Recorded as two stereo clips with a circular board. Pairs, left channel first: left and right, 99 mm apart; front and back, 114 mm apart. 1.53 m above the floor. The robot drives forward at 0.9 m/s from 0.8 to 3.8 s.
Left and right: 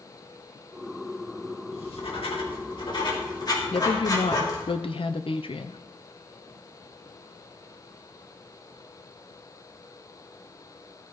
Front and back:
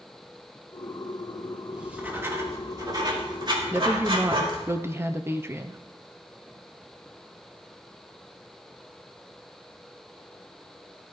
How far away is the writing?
About 2 m.